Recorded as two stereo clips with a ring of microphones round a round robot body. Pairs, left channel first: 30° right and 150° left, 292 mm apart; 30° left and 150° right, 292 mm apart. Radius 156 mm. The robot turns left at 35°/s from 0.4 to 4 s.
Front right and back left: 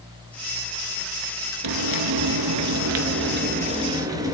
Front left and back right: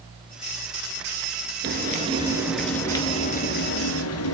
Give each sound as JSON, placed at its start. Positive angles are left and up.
{"t": 1.6, "sound": "frying", "azimuth_deg": 155, "distance_m": 2.0}